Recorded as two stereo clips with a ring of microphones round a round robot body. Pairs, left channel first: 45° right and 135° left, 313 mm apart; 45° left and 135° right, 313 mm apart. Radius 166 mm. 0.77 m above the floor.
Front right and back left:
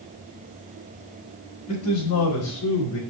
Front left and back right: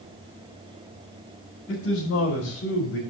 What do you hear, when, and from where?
1.7 s a man speaking: 5° right, 4.5 m